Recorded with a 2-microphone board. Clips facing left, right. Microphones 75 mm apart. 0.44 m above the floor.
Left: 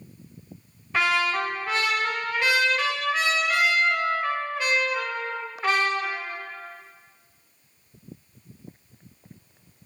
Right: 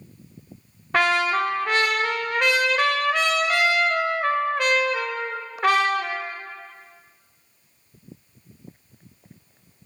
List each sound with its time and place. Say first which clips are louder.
0.9 s a trumpet: right 3 dB; 60° right (ahead or behind), 0.6 m